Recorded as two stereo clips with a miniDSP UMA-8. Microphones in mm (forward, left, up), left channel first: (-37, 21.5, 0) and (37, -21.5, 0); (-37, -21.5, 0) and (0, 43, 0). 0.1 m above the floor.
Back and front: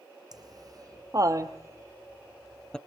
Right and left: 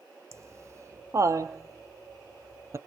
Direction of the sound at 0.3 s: 10° left.